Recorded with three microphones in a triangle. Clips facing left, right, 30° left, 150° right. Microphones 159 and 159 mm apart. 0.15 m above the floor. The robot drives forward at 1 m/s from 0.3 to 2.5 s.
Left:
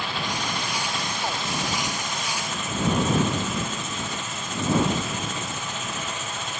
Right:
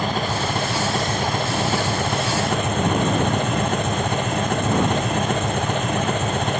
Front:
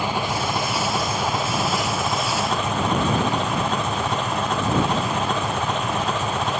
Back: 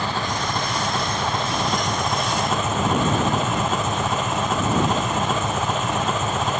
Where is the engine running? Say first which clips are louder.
Right 7 dB, front 1 dB; 45° right; by 6.6 s 65° right.